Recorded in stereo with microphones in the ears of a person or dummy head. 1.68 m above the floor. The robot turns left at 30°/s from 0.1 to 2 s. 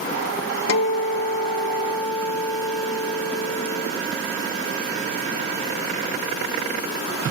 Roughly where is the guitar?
Left.